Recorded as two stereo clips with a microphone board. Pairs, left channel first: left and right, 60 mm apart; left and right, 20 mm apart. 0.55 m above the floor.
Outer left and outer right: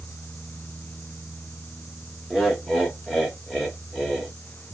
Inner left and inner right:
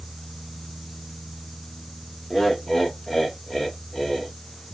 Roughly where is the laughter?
Centre.